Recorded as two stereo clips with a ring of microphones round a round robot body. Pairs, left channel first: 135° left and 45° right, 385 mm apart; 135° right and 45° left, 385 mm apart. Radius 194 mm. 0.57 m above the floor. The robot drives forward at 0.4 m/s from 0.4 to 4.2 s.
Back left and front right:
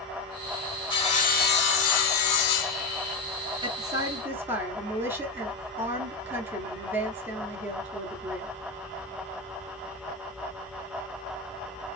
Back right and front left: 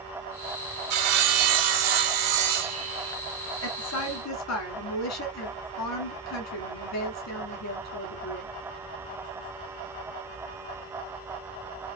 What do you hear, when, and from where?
0.9 s sawing: 55° left, 1.1 m; by 3.2 s 110° left, 1.0 m
3.6 s a woman speaking: 115° right, 1.4 m; by 8.5 s 125° right, 1.5 m